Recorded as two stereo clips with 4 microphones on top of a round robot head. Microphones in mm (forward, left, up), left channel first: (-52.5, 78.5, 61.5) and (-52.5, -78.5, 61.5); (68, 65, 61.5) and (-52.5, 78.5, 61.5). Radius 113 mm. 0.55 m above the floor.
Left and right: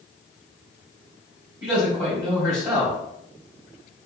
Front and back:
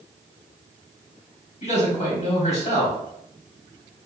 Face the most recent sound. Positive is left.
turn(degrees=-20)